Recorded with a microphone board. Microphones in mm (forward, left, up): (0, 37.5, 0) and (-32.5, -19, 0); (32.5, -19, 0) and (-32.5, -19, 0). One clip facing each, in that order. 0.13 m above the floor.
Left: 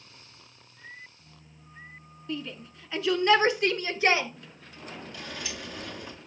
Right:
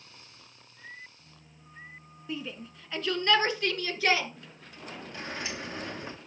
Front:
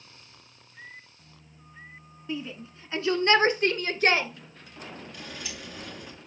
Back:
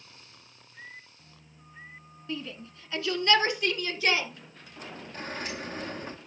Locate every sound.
2.3 s a shout: 55° right, 1.1 m; by 4.3 s 5° left, 1.5 m
5.1 s a sliding door: 165° right, 0.6 m